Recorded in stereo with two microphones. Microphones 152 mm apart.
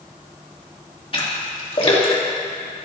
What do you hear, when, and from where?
1.1 s a splash: 35° left (ahead or behind), 2 m